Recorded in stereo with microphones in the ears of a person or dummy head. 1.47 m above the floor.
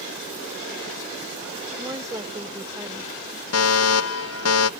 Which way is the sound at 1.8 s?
15° right (ahead or behind).